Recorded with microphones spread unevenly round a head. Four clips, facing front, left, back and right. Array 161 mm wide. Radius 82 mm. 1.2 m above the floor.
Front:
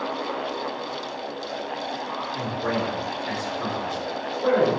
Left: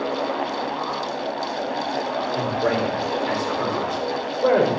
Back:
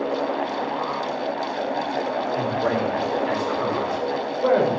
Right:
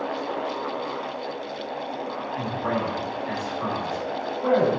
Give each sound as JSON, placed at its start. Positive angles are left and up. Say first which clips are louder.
{"t": 2.4, "sound": "a man speaking", "louder": "left 4 dB, back 2 dB", "azimuth_deg": 115, "distance_m": 5.0}